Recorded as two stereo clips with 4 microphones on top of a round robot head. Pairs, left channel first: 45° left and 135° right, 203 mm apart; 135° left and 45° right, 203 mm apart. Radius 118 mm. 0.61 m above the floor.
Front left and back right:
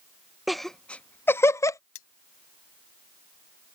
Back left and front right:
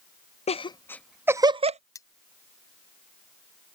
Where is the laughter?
135° left; by 1.8 s 20° right.